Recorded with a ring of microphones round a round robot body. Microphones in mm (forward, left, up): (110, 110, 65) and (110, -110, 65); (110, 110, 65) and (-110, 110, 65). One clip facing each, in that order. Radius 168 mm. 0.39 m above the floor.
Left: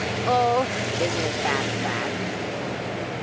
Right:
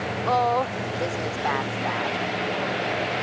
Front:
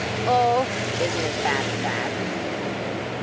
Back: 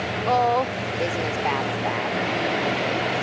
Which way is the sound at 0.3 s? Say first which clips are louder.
Left 2 dB, front 1 dB; 70° left.